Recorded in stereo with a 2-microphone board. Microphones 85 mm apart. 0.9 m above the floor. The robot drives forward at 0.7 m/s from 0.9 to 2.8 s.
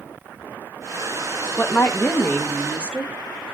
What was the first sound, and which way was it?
A woman speaking, 25° left (ahead or behind).